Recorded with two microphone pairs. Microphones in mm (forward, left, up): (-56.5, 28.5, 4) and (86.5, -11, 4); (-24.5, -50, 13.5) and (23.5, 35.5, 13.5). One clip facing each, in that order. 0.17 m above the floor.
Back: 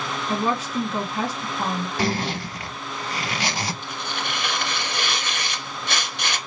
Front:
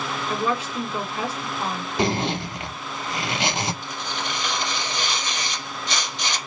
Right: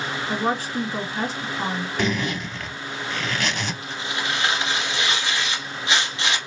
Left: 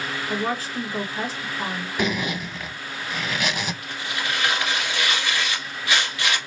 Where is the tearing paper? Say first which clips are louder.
Even, right 1 dB; straight behind, 1.8 m.